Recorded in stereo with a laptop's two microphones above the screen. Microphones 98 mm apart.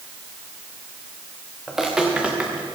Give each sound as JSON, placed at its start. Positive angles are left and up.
{"t": 1.7, "sound": "footsteps", "side_deg": -5, "distance_m": 4.0}